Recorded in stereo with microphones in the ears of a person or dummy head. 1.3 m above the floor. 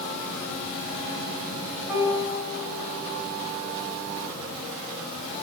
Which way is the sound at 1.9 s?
15° right (ahead or behind).